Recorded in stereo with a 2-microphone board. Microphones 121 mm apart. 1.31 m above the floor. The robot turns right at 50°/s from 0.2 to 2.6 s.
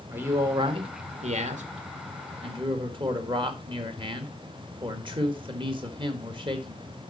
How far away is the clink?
No clink in this recording.